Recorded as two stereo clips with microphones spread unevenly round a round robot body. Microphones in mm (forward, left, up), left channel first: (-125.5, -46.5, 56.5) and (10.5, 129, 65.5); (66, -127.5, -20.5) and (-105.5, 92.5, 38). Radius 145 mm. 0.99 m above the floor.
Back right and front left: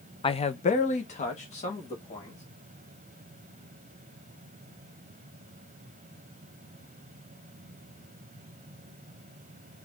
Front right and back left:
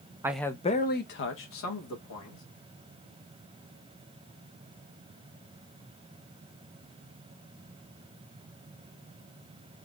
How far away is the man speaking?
About 0.6 m.